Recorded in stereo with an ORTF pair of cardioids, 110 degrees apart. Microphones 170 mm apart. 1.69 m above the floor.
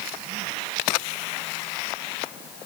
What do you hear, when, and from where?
Only background noise.